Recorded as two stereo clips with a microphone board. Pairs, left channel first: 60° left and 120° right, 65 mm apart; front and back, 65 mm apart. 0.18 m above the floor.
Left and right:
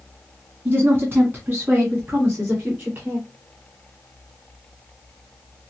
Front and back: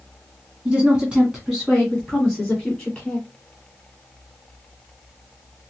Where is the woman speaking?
125° right, 1.9 m; by 3.2 s 75° right, 2.5 m.